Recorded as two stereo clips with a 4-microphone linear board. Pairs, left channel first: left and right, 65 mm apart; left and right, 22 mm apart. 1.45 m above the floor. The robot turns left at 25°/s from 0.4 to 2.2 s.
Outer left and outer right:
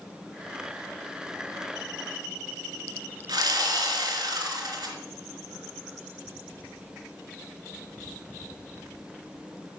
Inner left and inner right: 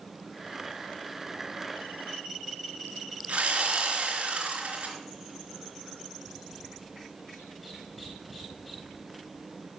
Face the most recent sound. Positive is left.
turn(degrees=-85)